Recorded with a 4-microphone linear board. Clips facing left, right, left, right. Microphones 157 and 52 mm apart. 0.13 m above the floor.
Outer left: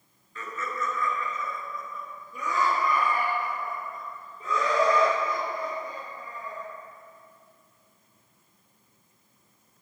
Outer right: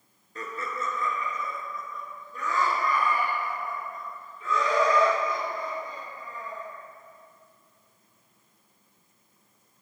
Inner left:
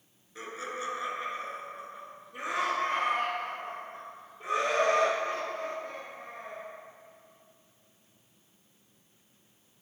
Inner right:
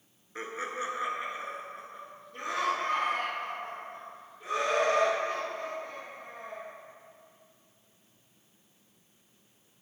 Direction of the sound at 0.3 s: 40° right (ahead or behind).